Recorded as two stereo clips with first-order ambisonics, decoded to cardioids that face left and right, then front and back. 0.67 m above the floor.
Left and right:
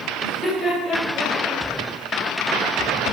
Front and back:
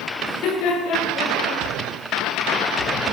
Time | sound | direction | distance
0.2 | laughter | 30° left | 5.5 m